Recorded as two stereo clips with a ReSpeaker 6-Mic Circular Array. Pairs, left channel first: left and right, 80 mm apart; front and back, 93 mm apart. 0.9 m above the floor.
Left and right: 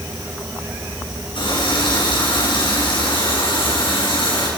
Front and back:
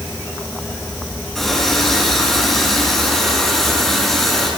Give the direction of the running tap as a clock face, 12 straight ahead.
9 o'clock.